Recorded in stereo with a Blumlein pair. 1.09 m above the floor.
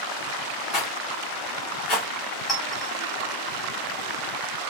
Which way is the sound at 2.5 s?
15° left.